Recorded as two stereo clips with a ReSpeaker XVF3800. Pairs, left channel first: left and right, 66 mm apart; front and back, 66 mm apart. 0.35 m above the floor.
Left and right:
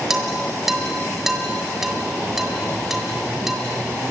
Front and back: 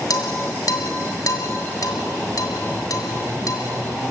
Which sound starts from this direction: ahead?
Dishes clattering, at 0.1 s.